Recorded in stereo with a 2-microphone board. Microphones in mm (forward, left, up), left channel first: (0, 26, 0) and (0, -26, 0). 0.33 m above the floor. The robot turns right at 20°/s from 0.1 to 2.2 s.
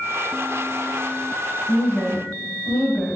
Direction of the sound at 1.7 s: 25° left (ahead or behind).